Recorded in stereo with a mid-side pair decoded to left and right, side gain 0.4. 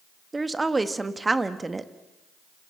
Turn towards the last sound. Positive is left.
turn(degrees=-25)